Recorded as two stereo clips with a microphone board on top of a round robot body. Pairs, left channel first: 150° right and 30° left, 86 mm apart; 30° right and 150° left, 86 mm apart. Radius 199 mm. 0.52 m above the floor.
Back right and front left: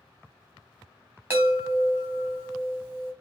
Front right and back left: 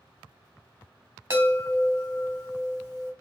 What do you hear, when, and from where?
1.3 s a chime: 95° left, 2 m